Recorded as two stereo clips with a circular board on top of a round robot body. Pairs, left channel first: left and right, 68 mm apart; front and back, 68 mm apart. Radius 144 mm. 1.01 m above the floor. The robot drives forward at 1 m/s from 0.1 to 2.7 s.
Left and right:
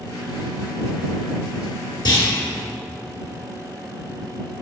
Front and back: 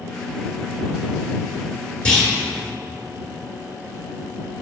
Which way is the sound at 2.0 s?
75° left.